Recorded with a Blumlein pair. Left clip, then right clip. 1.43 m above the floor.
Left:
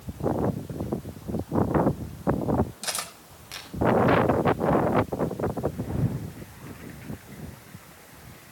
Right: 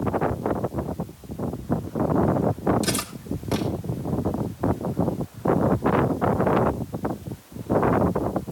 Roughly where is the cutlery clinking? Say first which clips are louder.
Right 5 dB; ahead.